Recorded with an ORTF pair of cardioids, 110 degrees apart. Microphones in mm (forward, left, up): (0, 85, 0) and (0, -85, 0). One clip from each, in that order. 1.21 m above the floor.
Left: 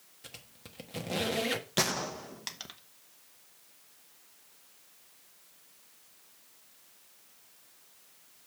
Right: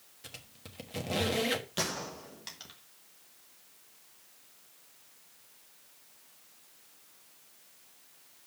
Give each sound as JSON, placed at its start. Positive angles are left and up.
{"t": 0.2, "sound": "a squeak", "azimuth_deg": 0, "distance_m": 1.2}
{"t": 1.8, "sound": "a gunshot", "azimuth_deg": 35, "distance_m": 1.1}